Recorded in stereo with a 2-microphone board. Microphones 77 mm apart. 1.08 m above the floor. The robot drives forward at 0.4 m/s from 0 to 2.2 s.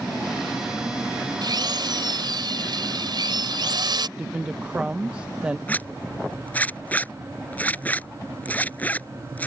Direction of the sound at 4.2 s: 15° right (ahead or behind).